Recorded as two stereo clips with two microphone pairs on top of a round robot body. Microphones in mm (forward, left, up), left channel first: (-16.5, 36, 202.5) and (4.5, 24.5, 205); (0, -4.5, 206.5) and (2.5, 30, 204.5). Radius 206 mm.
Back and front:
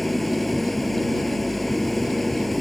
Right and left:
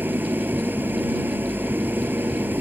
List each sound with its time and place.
0.0 s an engine running: 65° left